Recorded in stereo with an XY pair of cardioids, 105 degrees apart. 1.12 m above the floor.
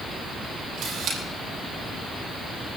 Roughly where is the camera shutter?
Right.